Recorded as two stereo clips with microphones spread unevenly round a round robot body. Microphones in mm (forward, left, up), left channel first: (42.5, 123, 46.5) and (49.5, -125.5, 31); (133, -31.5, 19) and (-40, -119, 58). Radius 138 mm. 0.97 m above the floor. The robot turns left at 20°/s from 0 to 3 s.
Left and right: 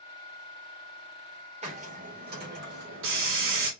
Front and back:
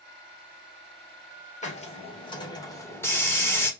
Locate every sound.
1.6 s a hiss: 25° right, 2 m; by 3.7 s 55° right, 2 m